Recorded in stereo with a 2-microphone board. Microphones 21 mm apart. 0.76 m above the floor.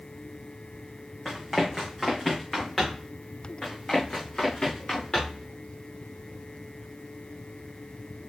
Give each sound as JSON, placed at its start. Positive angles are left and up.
{"t": 1.2, "sound": "running footsteps", "side_deg": 5, "distance_m": 2.5}
{"t": 3.6, "sound": "running footsteps", "side_deg": 25, "distance_m": 3.5}